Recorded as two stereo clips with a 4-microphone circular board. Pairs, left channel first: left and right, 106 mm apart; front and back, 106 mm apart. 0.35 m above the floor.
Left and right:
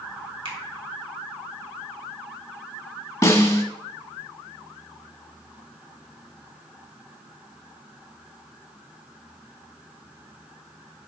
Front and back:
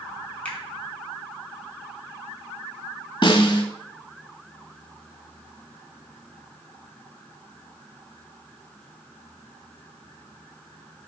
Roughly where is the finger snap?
Right.